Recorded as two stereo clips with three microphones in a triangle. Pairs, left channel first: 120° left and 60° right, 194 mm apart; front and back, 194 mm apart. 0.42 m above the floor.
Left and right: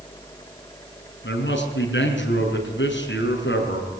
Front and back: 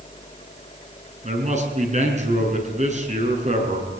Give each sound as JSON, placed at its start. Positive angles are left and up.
{"t": 1.2, "sound": "a man speaking", "azimuth_deg": 130, "distance_m": 6.0}